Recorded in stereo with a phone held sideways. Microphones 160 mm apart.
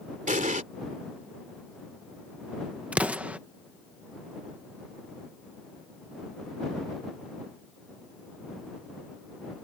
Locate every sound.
0.3 s an explosion: 55° right (ahead or behind)
2.9 s an explosion: 10° right (ahead or behind)